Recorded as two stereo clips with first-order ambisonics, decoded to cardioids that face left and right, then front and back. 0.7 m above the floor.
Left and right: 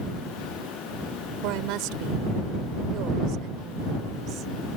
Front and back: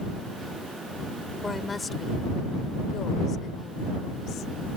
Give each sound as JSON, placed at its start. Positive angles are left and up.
{"t": 1.4, "sound": "a woman speaking", "azimuth_deg": -80}